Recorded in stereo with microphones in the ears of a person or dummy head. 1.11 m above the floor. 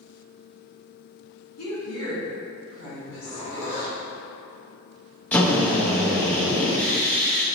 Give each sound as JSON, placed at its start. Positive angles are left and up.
{"t": 1.6, "sound": "a woman speaking", "side_deg": 80, "distance_m": 1.4}
{"t": 3.0, "sound": "a zipper", "side_deg": 85, "distance_m": 1.3}
{"t": 5.3, "sound": "a drill", "side_deg": 5, "distance_m": 0.6}